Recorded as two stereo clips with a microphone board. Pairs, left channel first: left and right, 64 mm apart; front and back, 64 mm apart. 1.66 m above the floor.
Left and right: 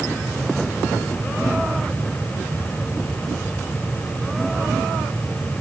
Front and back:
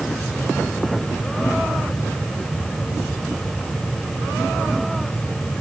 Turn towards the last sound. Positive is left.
No sound to turn to.